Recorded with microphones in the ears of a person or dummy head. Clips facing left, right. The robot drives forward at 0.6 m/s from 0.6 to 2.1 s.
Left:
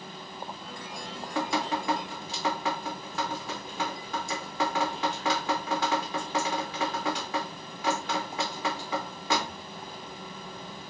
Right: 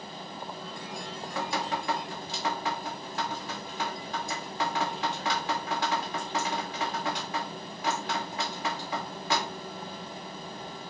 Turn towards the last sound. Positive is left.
turn(degrees=60)  # may be behind; listen again after turning